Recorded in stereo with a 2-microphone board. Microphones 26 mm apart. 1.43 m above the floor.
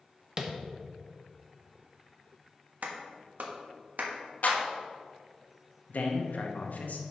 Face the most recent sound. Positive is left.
turn(degrees=75)  # may be behind; listen again after turning